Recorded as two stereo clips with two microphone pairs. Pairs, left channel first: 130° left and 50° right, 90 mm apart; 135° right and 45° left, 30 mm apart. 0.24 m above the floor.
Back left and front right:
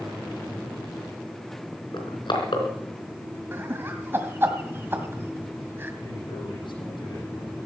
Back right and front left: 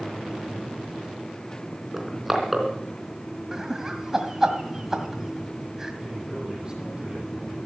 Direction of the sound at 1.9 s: 125° left.